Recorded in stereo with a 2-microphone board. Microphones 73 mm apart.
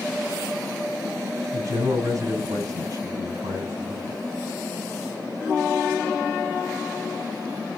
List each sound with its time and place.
1.5 s a man speaking: 50° right (ahead or behind), 5 m